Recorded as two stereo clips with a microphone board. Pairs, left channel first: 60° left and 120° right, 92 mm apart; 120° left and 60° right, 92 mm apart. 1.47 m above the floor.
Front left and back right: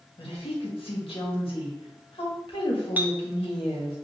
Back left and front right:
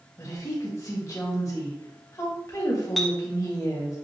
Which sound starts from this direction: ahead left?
A woman speaking, at 0.2 s.